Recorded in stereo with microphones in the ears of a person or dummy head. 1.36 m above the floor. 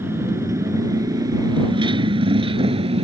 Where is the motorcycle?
15° right (ahead or behind); by 3.0 s 30° right (ahead or behind).